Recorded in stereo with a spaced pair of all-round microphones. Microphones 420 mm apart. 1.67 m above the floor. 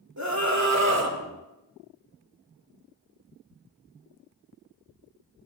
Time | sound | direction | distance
0.2 | a scream | 40° right (ahead or behind) | 3 m